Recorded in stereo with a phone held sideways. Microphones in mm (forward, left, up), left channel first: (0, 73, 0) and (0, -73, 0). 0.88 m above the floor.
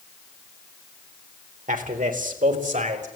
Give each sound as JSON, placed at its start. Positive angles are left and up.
{"t": 1.7, "sound": "a man speaking", "side_deg": -75, "distance_m": 3.5}